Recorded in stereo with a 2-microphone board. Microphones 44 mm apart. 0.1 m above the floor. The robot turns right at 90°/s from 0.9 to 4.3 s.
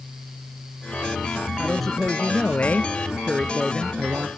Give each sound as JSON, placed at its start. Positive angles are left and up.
{"t": 1.6, "sound": "a man speaking", "azimuth_deg": -5, "distance_m": 1.3}